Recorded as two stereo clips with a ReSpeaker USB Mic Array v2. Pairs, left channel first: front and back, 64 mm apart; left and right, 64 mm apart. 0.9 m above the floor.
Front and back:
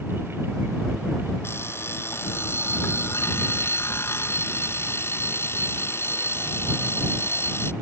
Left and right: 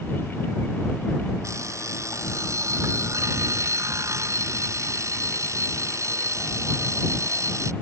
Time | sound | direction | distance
1.4 | an alarm clock | 50° right | ?